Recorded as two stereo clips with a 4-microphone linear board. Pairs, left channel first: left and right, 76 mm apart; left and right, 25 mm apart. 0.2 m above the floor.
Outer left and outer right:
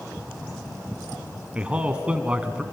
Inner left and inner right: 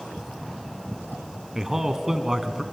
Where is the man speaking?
15° right (ahead or behind), 1.6 m.